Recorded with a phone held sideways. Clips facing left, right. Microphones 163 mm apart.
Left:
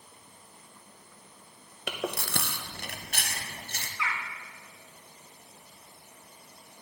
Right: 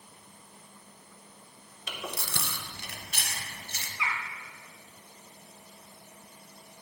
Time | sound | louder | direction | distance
1.9 | chewing | left 6 dB | 60° left (ahead or behind) | 0.6 m
4.0 | a bird | even | 20° right (ahead or behind) | 0.8 m